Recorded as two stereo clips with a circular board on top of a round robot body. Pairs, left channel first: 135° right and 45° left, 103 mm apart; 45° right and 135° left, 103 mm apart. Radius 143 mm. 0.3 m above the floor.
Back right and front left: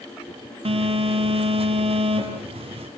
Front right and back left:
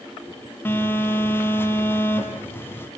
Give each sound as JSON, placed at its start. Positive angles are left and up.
{"t": 0.7, "sound": "a phone buzzing", "azimuth_deg": 25, "distance_m": 4.5}